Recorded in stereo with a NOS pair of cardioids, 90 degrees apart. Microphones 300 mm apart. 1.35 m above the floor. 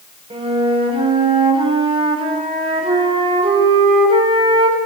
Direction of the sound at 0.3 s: 20° right.